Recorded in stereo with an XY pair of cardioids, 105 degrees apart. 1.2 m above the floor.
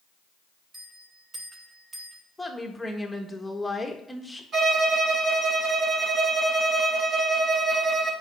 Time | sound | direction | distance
0.7 | a bell | 25° right | 2.5 m
2.4 | a woman speaking | 10° left | 1.6 m
4.5 | a violin | 50° right | 4 m